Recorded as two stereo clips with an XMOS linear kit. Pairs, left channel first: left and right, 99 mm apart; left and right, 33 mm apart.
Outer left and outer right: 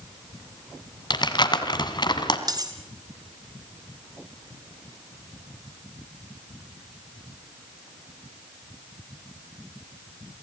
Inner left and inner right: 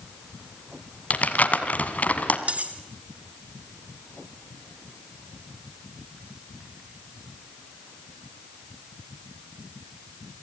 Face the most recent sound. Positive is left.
turn(degrees=-40)  # may be behind; listen again after turning